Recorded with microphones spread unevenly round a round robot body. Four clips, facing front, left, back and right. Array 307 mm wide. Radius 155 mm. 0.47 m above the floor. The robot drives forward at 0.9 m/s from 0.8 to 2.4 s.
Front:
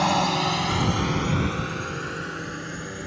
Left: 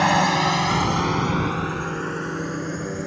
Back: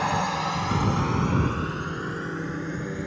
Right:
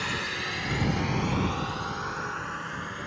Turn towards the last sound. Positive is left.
turn(degrees=120)